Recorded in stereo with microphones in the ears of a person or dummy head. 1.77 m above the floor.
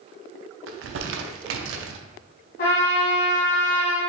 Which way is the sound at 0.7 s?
70° right (ahead or behind).